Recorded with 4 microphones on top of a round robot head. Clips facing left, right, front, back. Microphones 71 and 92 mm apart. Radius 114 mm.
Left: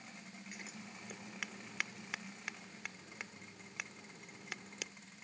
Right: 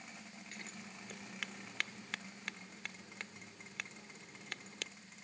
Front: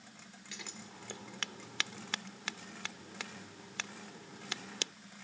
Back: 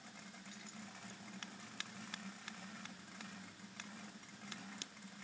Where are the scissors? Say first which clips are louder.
Even, front 8 dB; 5° left.